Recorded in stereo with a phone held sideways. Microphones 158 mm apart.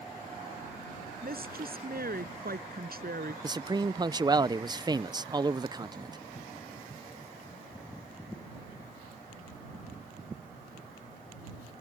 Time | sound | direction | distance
1.2 | a woman speaking | 70° right (ahead or behind) | ?
3.4 | a man speaking | 25° right (ahead or behind) | ?